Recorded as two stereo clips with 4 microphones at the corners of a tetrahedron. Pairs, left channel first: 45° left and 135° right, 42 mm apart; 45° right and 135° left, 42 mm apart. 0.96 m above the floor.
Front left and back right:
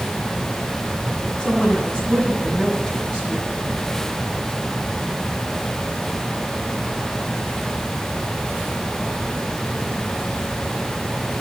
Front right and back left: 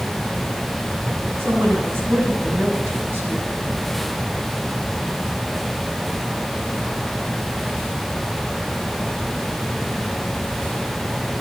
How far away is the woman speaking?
About 8.5 m.